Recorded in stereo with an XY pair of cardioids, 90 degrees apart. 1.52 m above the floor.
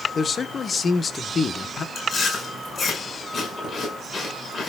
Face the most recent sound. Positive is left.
turn(degrees=50)